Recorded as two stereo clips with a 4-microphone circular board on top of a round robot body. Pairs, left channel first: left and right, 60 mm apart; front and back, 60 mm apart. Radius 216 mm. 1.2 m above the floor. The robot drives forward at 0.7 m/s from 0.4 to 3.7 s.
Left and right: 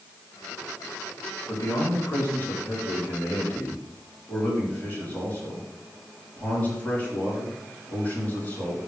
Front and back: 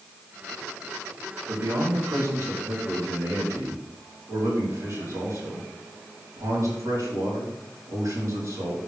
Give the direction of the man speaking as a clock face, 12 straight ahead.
8 o'clock.